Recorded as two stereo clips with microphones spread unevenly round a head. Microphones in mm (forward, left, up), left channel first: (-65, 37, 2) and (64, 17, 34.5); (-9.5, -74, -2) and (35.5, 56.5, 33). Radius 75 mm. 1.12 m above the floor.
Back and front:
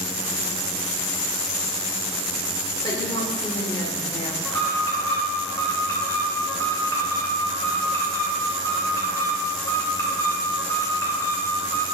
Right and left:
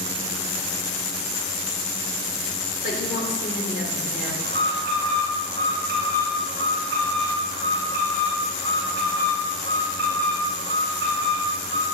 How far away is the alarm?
About 3 m.